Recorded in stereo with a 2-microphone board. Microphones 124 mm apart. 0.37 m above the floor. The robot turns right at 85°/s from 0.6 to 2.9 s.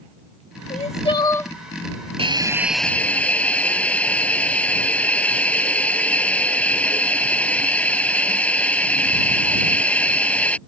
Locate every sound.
0.7 s crying: 100° left; by 1.5 s 170° left
2.2 s a hiss: 50° right; by 10.6 s 10° left